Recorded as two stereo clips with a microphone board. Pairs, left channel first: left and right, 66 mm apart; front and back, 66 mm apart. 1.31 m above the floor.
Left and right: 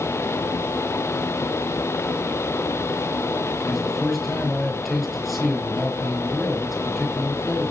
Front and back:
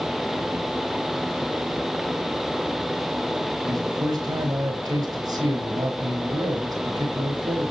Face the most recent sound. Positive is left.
turn(degrees=180)